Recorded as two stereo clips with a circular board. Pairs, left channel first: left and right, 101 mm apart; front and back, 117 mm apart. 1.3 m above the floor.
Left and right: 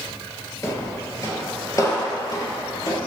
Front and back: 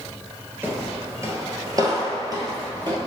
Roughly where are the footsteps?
Behind left.